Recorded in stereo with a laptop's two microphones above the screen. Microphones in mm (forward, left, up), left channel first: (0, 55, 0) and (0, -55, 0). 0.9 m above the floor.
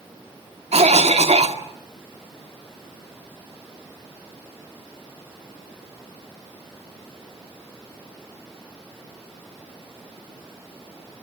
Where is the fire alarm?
No fire alarm in this recording.